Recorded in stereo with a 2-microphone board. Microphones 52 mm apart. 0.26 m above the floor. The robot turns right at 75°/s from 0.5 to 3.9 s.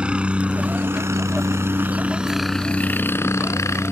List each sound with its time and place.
0.0 s a helicopter: 20° right (ahead or behind); by 3.9 s 55° left (ahead or behind)